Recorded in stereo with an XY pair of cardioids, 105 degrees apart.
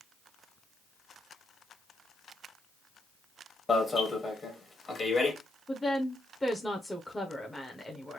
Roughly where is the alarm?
Ahead left.